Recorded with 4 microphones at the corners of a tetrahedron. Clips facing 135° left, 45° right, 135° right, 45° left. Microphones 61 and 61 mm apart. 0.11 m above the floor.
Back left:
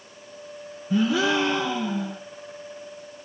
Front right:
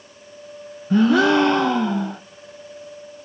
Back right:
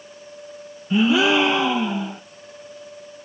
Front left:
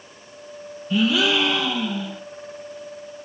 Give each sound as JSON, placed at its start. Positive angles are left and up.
{"t": 0.9, "sound": "a gasp", "azimuth_deg": -75, "distance_m": 0.8}